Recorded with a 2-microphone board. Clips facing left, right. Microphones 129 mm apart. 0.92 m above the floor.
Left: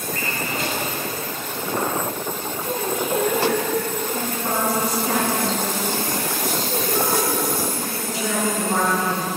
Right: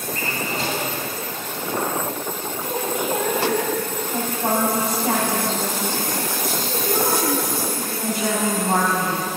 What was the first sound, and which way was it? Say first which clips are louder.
A drawer: right 2 dB; 30° right (ahead or behind).